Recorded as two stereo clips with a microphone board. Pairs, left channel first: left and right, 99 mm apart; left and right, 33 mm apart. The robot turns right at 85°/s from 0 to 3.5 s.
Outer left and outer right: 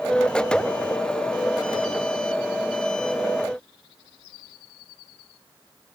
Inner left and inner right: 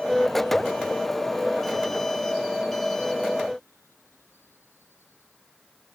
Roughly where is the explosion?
No explosion in this recording.